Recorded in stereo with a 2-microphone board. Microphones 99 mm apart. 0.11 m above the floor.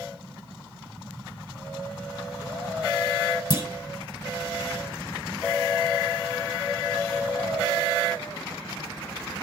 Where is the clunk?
40° left (ahead or behind), 2 m.